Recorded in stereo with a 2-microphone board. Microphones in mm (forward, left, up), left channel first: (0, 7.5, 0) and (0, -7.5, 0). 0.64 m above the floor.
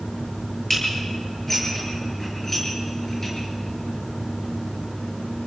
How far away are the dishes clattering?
About 8.5 m.